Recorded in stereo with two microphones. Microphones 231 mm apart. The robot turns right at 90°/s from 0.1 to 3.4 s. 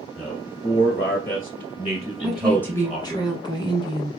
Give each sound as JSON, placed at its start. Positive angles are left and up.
{"t": 0.2, "sound": "a man speaking", "side_deg": -5, "distance_m": 1.3}
{"t": 2.2, "sound": "a woman speaking", "side_deg": -5, "distance_m": 1.4}